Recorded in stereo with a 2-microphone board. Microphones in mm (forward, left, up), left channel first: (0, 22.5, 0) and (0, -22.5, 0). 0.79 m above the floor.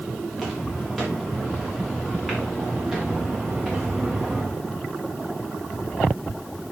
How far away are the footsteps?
About 6.5 m.